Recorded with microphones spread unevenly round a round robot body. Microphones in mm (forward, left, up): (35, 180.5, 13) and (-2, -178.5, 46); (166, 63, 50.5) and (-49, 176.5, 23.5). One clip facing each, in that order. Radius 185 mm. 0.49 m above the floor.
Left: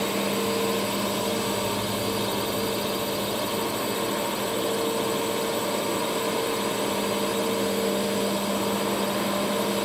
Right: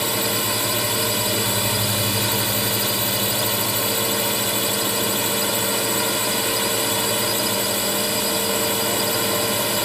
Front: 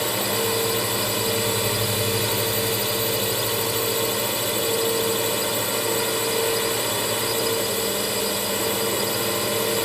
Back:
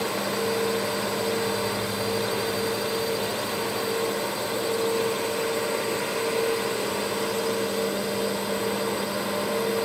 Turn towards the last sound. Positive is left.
turn(degrees=-75)